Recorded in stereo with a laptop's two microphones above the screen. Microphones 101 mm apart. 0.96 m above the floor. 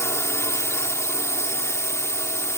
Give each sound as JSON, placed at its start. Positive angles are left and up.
{"t": 0.0, "sound": "a drone", "side_deg": 25}